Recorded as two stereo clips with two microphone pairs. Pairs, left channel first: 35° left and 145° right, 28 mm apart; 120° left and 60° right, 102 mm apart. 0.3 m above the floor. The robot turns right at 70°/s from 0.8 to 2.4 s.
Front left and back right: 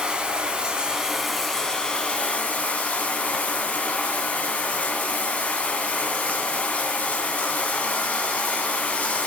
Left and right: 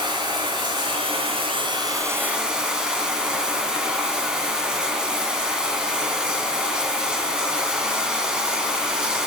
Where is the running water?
90° right, 2.5 m; by 9.3 s 20° left, 2.5 m.